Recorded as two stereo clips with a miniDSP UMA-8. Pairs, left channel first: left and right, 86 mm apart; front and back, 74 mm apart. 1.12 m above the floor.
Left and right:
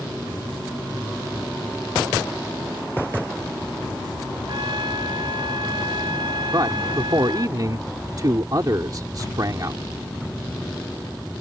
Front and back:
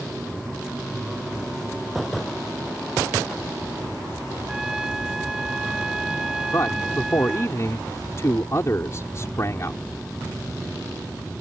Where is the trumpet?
100° right.